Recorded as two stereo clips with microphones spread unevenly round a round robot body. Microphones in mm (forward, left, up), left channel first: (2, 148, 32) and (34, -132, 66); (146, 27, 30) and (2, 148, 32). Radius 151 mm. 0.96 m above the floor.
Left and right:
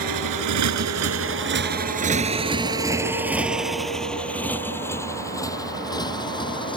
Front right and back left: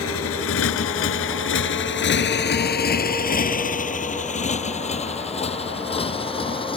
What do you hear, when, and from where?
0.0 s a motorcycle: 70° right; by 6.8 s 25° left